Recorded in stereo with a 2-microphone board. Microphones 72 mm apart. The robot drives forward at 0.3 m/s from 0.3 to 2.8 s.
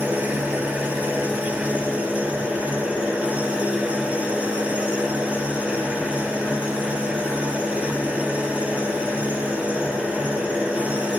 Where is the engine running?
20° right (ahead or behind), 4 m; by 11.2 s 15° right (ahead or behind), 4.5 m.